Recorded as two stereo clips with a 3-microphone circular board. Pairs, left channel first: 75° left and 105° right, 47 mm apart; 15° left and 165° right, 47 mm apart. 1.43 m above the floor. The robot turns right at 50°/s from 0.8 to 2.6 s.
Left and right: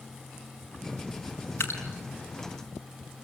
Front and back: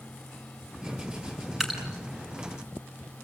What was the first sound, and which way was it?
Dripping, 110° left.